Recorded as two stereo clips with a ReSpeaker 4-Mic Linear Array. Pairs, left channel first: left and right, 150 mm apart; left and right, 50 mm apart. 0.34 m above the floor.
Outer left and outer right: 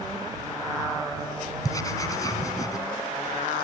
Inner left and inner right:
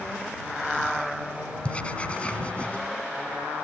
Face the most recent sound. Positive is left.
turn(degrees=25)  # may be behind; listen again after turning